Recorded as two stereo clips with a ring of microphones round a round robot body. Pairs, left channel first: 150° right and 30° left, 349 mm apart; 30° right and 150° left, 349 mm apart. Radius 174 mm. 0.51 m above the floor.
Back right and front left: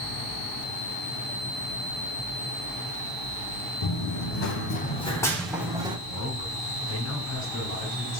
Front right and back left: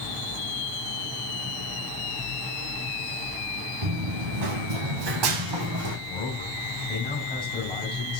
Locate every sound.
3.8 s running footsteps: 175° left, 1.9 m; by 6.0 s 105° left, 2 m
6.1 s a man speaking: 105° right, 3.5 m